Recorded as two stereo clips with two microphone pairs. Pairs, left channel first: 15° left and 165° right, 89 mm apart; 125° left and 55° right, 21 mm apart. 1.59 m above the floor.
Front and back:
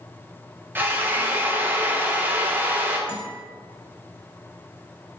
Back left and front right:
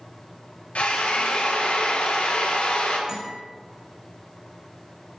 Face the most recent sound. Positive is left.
turn(degrees=0)